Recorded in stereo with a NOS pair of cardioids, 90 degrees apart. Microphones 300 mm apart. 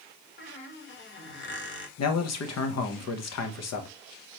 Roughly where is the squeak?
Ahead left.